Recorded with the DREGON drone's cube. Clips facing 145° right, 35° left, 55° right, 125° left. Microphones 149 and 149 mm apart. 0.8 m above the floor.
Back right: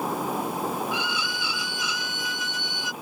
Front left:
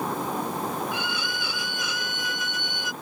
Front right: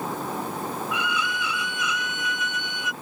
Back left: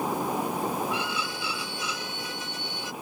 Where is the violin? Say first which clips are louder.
Back right 1 dB, front right 2 dB; 70° left.